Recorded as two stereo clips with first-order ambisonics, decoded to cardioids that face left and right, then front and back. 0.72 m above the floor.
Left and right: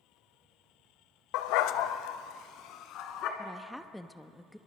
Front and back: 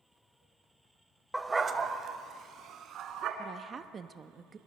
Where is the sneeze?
I don't hear a sneeze.